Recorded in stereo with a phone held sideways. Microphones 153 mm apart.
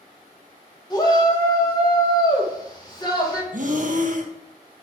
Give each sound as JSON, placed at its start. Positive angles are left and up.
{"t": 0.9, "sound": "a shout", "side_deg": 25, "distance_m": 1.8}
{"t": 3.5, "sound": "breathing", "side_deg": -55, "distance_m": 0.9}